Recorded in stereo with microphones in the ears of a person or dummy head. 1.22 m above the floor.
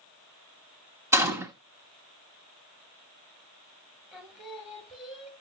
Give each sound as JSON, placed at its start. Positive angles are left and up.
{"t": 1.1, "sound": "a gunshot", "side_deg": -20, "distance_m": 1.0}
{"t": 4.1, "sound": "singing", "side_deg": 0, "distance_m": 1.9}